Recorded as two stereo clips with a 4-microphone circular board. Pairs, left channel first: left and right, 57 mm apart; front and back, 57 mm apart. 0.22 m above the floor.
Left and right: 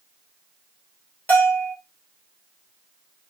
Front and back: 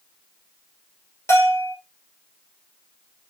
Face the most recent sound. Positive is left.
turn(degrees=25)